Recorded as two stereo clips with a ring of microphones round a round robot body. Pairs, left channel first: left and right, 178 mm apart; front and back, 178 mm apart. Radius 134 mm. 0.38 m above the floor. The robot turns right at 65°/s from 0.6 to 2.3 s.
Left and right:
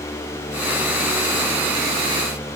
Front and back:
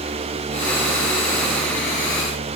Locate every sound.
Only background noise.